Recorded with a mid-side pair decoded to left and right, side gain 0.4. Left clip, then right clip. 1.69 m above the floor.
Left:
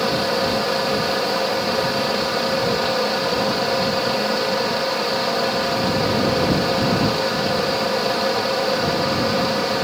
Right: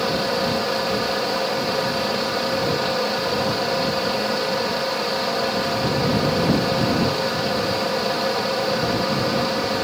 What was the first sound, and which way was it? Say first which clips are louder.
A fan: left 2 dB; 10° left.